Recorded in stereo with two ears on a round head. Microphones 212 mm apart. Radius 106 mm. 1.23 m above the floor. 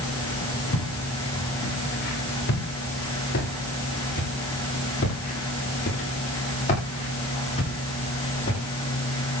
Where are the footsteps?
50° left (ahead or behind), 9 m; by 8.6 s 20° left (ahead or behind), 12.5 m.